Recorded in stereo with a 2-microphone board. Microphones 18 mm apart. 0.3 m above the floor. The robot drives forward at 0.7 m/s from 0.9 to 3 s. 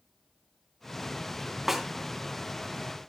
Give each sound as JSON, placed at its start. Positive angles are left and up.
{"t": 1.7, "sound": "a snare drum", "side_deg": -15, "distance_m": 3.0}